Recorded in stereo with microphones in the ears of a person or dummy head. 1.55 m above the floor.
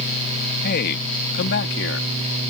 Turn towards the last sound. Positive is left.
turn(degrees=75)  # may be behind; listen again after turning